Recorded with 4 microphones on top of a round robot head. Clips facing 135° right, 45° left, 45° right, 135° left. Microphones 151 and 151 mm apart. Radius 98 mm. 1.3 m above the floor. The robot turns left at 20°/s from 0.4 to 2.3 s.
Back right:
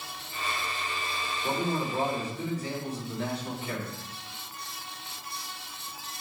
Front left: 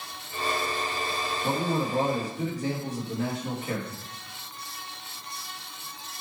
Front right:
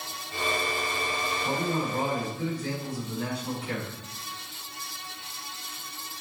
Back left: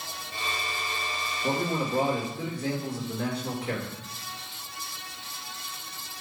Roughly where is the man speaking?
Behind left.